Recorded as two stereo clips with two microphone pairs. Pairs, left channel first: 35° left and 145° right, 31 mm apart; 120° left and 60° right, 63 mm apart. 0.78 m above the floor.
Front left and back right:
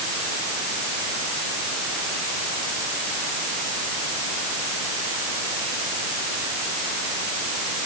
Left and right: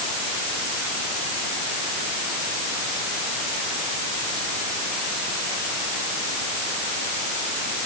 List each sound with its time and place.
Only background noise.